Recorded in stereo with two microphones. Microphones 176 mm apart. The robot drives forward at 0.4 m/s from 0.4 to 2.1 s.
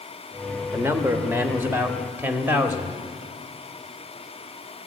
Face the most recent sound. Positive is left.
turn(degrees=-10)  # may be behind; listen again after turning